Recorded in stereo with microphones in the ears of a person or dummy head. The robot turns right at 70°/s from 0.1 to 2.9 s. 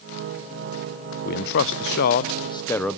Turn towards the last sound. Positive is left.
turn(degrees=0)  # may be behind; listen again after turning